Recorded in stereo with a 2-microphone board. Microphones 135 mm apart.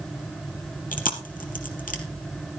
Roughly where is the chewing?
Left.